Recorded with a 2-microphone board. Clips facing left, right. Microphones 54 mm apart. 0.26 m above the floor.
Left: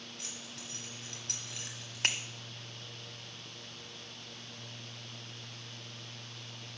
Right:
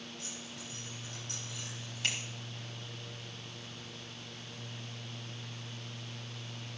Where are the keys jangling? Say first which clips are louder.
Right 1 dB; 60° left (ahead or behind), 4 m.